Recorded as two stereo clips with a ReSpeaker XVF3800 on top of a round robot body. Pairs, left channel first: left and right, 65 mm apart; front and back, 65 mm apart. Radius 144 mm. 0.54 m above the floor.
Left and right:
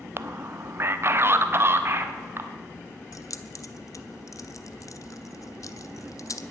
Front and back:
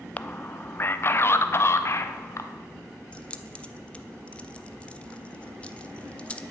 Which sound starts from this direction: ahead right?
A man speaking, at 0.2 s.